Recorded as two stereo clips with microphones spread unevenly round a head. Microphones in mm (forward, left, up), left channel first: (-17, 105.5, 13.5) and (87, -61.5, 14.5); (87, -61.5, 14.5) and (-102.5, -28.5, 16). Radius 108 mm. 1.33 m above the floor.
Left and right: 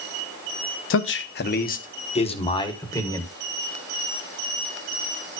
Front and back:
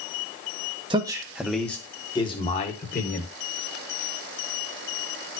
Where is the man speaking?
100° left, 1.0 m; by 3.3 s 45° left, 1.6 m.